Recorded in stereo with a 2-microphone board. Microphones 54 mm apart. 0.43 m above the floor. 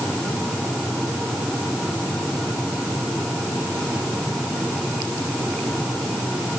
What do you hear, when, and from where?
Only background noise.